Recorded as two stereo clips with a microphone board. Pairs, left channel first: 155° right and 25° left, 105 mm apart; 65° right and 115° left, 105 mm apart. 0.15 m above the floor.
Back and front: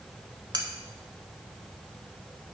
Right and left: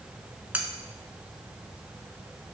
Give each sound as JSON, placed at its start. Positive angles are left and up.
{"t": 0.5, "sound": "cutlery clinking", "azimuth_deg": 40, "distance_m": 0.9}